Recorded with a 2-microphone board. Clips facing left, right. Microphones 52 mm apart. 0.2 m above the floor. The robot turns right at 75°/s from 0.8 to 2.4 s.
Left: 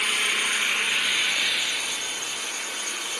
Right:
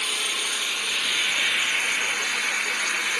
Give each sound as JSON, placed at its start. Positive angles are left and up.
{"t": 0.0, "sound": "an engine running", "azimuth_deg": 150, "distance_m": 1.5}